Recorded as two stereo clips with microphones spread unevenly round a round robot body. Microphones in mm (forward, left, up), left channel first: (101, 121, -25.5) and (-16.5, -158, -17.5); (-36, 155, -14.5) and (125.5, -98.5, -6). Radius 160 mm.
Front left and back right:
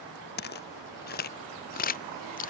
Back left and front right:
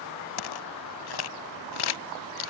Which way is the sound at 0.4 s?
130° left.